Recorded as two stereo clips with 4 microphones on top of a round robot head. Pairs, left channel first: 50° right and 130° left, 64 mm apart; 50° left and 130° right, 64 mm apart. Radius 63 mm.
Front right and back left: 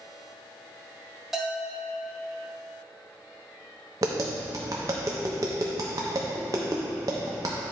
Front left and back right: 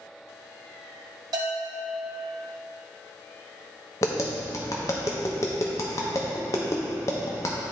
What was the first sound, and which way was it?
A bell, 145° right.